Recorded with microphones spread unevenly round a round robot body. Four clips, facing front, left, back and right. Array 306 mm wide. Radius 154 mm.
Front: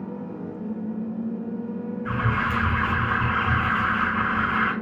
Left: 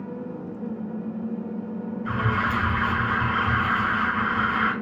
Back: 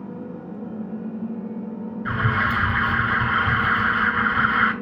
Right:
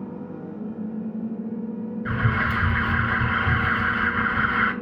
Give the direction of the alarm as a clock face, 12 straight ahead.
4 o'clock.